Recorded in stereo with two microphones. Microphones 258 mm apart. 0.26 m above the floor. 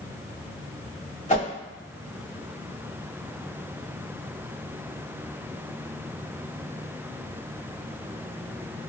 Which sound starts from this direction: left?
A whoosh, at 1.3 s.